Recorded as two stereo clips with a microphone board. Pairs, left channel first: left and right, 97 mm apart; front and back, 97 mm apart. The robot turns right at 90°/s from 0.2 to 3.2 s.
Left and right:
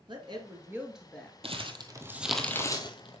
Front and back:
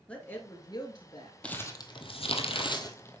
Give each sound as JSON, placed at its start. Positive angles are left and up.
{"t": 0.1, "sound": "a woman speaking", "azimuth_deg": -75, "distance_m": 2.5}
{"t": 1.4, "sound": "crumpling", "azimuth_deg": -80, "distance_m": 1.1}